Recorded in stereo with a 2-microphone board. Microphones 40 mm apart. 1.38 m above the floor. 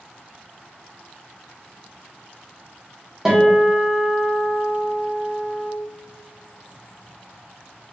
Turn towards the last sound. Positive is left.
turn(degrees=-15)  # may be behind; listen again after turning